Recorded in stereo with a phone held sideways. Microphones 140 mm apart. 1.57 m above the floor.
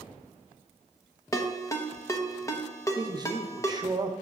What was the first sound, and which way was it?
A ringtone, 20° left (ahead or behind).